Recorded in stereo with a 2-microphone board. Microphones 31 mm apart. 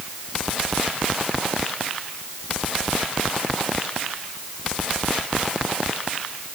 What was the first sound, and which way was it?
Only background noise.